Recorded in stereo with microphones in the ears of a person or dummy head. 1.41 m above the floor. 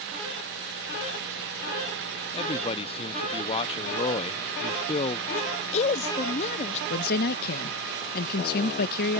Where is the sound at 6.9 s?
50° left (ahead or behind).